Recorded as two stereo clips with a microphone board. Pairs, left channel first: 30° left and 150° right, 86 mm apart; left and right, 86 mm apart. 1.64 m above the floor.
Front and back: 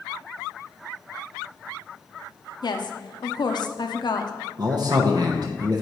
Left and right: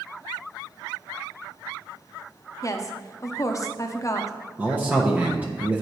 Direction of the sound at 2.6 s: 45° left.